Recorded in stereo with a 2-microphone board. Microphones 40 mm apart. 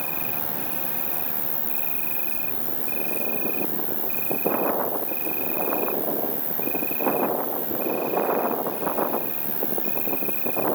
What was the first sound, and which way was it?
An insect, 30° right (ahead or behind).